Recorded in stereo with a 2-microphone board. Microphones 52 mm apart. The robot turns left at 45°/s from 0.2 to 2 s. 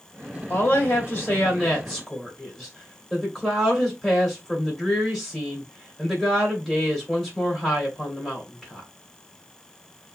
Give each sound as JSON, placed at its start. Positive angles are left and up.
{"t": 0.5, "sound": "a woman speaking", "azimuth_deg": 70, "distance_m": 2.0}